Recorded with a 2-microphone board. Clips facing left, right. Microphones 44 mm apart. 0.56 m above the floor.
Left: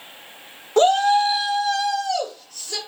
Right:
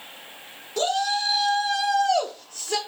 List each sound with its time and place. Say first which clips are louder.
0.8 s a shout: left 9 dB; 45° left (ahead or behind), 0.9 m; by 2.8 s 55° right (ahead or behind), 1.2 m